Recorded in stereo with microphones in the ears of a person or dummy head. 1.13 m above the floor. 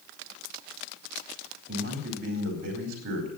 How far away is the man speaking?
About 4 m.